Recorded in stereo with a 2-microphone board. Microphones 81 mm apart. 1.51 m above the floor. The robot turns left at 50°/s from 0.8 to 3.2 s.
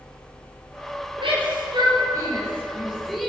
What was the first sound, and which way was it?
A shout, 85° right.